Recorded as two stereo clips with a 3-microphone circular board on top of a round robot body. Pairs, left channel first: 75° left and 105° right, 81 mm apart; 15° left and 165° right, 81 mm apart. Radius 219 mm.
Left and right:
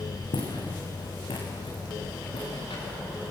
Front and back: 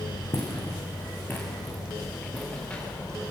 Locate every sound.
0.3 s footsteps: 75° left, 4.5 m; by 3.2 s 90° left, 9 m